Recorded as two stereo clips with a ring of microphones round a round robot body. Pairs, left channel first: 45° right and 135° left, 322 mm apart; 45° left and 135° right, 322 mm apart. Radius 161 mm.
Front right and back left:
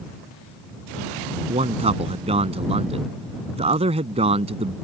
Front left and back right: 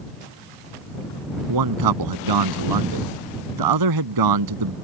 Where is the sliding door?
No sliding door in this recording.